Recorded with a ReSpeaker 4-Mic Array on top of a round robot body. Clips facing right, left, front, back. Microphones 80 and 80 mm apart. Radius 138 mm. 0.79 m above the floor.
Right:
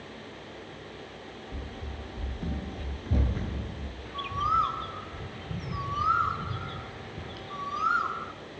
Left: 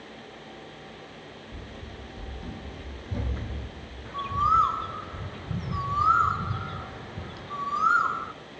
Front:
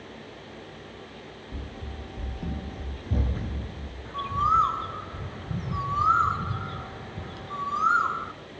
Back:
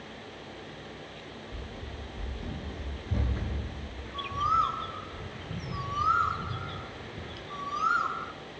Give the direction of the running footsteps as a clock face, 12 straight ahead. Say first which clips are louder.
Right 1 dB, front 2 dB; 12 o'clock.